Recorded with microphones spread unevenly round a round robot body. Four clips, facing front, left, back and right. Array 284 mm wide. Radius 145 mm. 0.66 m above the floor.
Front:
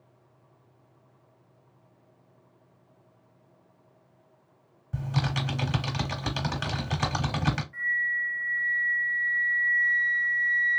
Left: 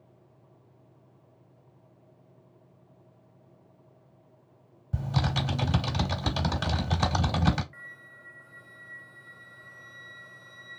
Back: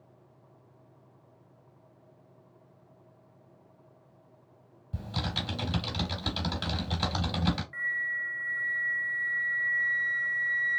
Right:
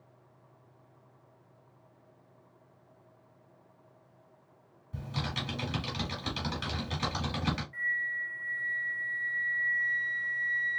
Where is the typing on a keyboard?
75° left, 0.8 m.